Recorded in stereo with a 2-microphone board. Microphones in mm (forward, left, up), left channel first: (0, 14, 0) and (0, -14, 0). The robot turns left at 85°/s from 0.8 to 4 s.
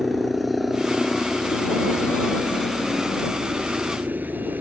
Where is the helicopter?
175° right; by 4.6 s 85° right.